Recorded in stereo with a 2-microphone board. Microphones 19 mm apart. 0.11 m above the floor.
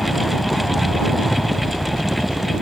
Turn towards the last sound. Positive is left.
turn(degrees=-5)  # may be behind; listen again after turning